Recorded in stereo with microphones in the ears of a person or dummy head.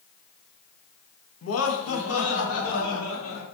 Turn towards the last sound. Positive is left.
turn(degrees=80)